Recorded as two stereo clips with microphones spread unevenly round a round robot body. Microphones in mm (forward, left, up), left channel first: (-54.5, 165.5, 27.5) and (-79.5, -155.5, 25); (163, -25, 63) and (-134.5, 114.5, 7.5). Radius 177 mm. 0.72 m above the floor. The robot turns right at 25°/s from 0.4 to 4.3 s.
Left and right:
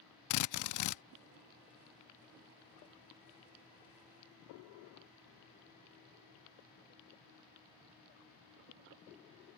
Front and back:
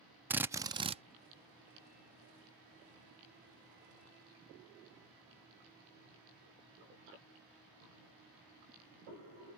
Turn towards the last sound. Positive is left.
turn(degrees=175)